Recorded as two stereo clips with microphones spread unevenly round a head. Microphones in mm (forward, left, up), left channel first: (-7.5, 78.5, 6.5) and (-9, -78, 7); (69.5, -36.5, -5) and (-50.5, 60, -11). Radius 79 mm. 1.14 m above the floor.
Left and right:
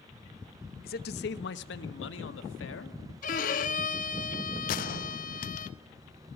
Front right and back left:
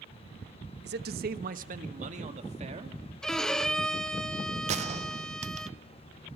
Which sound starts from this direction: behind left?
A man speaking, at 0.8 s.